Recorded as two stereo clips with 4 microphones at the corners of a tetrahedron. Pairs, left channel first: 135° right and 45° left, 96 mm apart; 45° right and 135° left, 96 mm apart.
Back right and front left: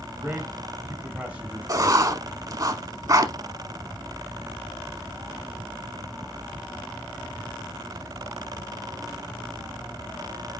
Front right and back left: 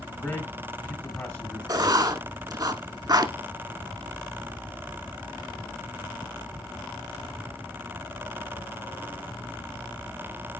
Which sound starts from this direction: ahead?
A man speaking, at 0.2 s.